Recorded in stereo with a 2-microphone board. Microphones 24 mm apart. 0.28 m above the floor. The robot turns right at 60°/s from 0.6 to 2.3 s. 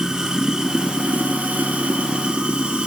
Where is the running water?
150° right, 1.8 m; by 2.9 s 45° right, 1.8 m.